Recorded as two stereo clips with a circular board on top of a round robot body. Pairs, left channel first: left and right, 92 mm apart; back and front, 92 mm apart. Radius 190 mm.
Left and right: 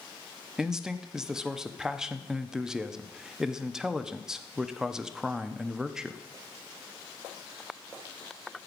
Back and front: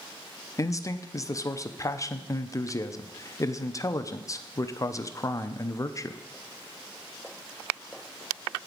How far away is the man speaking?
About 0.9 m.